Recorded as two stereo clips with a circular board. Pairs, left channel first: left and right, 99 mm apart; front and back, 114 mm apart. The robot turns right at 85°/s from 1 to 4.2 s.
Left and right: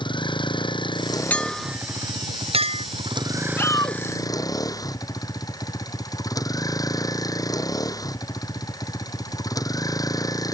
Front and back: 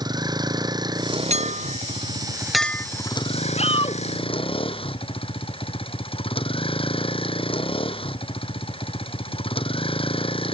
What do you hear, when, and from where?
0.0 s a vehicle: 125° left; by 10.6 s 40° left
1.3 s a clink: 165° left; by 2.9 s 65° right
3.6 s a shout: 20° left; by 4.0 s 60° left